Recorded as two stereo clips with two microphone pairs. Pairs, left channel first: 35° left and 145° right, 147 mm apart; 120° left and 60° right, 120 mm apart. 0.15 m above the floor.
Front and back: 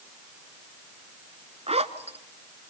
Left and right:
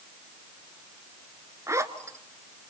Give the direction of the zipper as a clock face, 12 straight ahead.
4 o'clock.